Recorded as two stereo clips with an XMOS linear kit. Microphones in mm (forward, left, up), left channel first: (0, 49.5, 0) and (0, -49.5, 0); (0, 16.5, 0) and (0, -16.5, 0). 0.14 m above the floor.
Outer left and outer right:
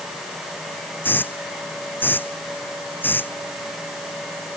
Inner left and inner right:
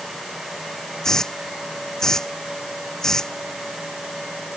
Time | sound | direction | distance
1.0 | a hiss | 20° left (ahead or behind) | ?